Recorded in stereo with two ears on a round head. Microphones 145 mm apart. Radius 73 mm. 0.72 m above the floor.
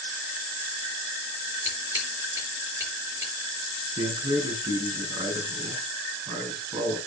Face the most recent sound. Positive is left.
turn(degrees=-25)  # may be behind; listen again after turning